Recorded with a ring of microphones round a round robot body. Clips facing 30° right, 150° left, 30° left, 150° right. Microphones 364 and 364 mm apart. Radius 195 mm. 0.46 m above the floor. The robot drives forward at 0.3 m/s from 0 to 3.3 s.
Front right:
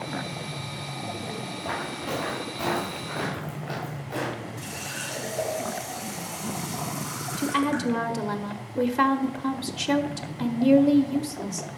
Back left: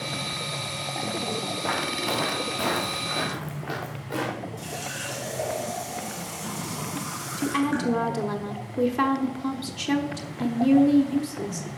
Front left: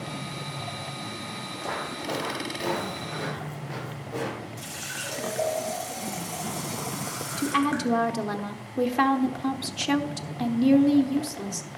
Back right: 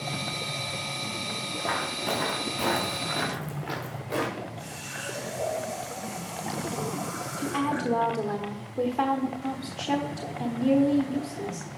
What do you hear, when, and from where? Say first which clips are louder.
1.6 s footsteps: back left 3 dB, even; 170° left, 3.5 m; by 4.5 s 145° right, 4 m
4.6 s a running tap: back left 1 dB, even; 70° left, 4.5 m
7.4 s a woman speaking: back left 1 dB, front left 3 dB; 55° left, 1.0 m